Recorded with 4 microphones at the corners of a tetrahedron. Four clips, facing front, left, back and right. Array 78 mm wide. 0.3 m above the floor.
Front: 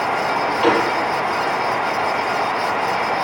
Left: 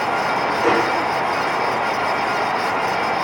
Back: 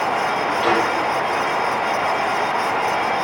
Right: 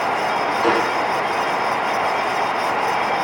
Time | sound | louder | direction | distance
0.6 | a gunshot | left 1 dB, front 2 dB | 15° left | 9 m